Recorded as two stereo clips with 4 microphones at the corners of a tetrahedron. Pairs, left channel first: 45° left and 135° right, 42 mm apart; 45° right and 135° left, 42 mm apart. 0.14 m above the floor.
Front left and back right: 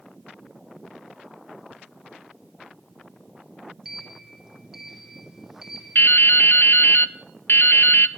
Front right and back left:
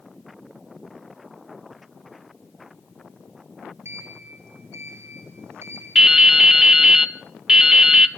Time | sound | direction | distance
3.9 | a sliding door | 140° left | 2.0 m
6.0 | dripping | 60° left | 0.7 m